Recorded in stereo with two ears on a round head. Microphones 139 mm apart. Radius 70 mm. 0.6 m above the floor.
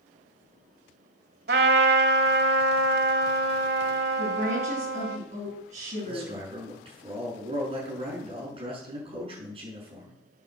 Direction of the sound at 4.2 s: 45° right (ahead or behind).